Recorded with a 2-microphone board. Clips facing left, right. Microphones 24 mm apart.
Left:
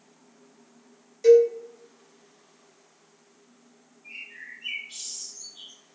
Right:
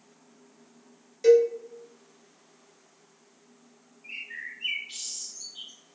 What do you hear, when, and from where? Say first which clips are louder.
1.2 s a cowbell: left 3 dB; 15° right (ahead or behind), 0.9 m
4.0 s a bird: right 3 dB; 55° right (ahead or behind), 1.3 m